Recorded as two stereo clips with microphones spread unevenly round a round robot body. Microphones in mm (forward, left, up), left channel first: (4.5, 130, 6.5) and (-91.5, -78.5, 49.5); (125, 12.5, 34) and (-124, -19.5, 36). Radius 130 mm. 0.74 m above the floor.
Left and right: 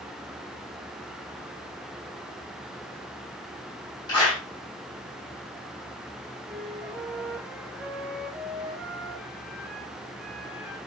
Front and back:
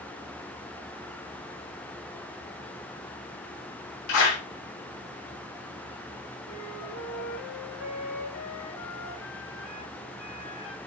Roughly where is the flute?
Ahead right.